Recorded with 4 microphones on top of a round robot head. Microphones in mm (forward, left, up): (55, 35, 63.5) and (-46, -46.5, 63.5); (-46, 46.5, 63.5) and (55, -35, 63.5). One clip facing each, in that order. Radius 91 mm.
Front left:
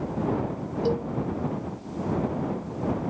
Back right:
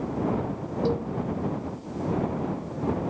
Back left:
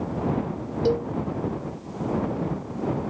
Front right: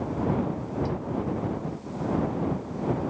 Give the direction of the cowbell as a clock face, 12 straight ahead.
8 o'clock.